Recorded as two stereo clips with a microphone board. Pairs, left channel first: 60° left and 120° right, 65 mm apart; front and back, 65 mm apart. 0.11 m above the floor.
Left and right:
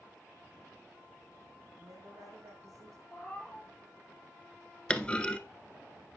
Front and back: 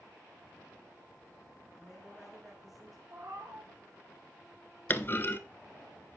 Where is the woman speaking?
95° right, 4.5 m.